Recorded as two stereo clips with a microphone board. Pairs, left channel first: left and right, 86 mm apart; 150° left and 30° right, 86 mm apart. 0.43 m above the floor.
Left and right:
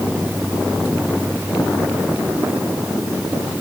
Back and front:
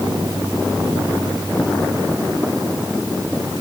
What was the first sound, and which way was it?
Only background noise.